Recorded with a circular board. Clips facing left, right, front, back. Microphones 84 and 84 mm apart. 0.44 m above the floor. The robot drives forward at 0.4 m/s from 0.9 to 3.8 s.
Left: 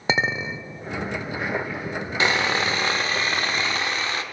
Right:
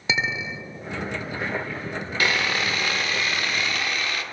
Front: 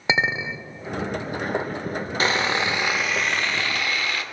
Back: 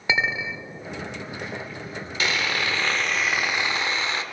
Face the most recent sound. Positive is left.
turn(degrees=130)